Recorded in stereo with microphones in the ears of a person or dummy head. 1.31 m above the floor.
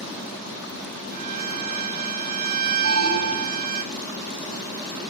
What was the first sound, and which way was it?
A violin, 55° right (ahead or behind).